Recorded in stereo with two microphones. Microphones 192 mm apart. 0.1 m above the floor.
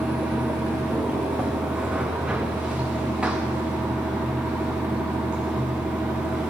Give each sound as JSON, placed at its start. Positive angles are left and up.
{"t": 0.0, "sound": "running water", "side_deg": -5, "distance_m": 1.2}